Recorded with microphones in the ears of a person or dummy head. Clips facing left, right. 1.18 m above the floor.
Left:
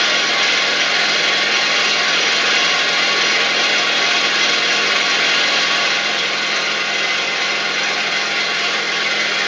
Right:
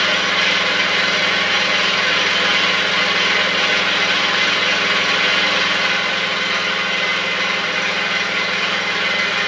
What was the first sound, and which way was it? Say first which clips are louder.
An engine running: even; 55° right (ahead or behind).